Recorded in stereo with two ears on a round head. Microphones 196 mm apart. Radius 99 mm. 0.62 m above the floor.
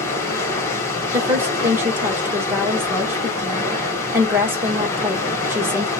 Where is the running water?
15° left (ahead or behind), 1.2 m.